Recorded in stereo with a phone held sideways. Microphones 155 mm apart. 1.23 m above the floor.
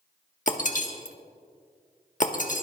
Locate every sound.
0.5 s breaking glass: 55° left (ahead or behind), 1.3 m